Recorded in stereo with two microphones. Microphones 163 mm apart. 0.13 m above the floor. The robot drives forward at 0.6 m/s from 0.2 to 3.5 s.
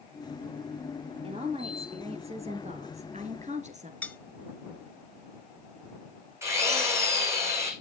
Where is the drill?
15° right (ahead or behind), 4.5 m.